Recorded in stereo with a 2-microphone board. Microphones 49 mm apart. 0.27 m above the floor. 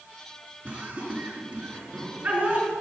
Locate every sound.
0.7 s laughter: 25° right (ahead or behind), 4 m